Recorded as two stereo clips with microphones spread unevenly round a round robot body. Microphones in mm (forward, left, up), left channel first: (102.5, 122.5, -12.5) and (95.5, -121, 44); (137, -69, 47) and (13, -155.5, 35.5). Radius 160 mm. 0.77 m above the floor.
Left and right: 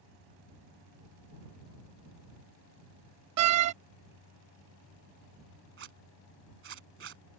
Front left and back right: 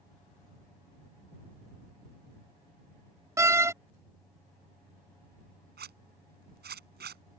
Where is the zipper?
150° right.